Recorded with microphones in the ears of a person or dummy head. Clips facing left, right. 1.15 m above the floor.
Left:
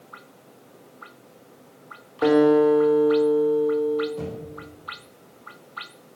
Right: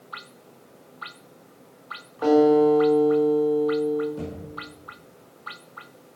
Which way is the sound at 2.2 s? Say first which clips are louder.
Even; 30° left (ahead or behind).